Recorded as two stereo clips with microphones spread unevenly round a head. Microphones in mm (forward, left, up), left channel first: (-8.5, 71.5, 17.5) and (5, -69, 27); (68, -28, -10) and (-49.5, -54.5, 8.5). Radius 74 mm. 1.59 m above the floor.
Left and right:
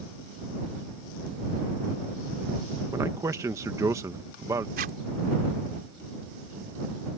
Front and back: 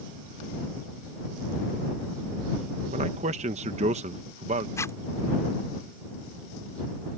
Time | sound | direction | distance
2.9 | a man speaking | 155° right | ?
4.8 | a zipper | 55° right | ?